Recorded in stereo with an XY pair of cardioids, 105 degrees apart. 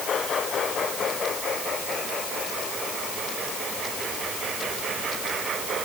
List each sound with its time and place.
Only background noise.